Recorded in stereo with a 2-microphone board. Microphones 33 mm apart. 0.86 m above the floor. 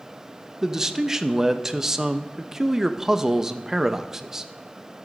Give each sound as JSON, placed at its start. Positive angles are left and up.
{"t": 0.6, "sound": "a man speaking", "side_deg": -15, "distance_m": 0.5}